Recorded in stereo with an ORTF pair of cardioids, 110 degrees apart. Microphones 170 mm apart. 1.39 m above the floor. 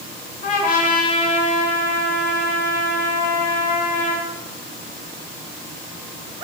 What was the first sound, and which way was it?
A trumpet, 55° left.